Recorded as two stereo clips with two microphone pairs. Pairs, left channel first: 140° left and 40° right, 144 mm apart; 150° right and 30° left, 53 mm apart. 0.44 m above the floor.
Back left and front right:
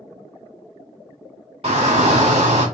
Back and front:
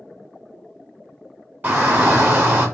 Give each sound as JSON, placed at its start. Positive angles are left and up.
{"t": 1.6, "sound": "a shout", "azimuth_deg": -5, "distance_m": 1.2}